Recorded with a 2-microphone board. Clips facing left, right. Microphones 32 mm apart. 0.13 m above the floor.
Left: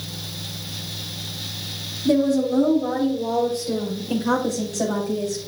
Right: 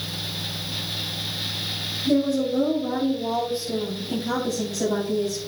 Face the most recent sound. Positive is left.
turn(degrees=60)  # may be behind; listen again after turning